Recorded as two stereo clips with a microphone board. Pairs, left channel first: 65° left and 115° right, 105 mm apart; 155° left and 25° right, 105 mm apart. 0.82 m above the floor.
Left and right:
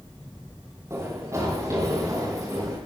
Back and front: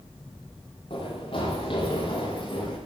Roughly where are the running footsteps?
Behind.